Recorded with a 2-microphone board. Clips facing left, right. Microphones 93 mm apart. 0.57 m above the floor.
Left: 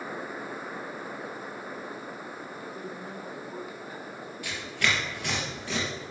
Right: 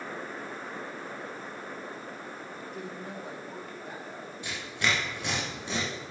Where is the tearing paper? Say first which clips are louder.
Left 1 dB; 25° right (ahead or behind), 4 m.